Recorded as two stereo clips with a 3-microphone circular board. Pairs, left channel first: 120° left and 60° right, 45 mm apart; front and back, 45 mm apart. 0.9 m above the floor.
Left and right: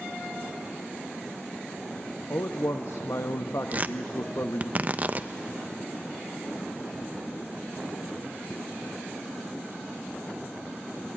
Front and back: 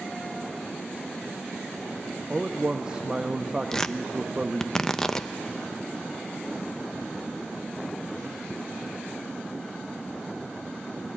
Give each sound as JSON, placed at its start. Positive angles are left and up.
{"t": 2.3, "sound": "a man speaking", "azimuth_deg": 115, "distance_m": 0.8}
{"t": 3.7, "sound": "tearing paper", "azimuth_deg": -70, "distance_m": 0.6}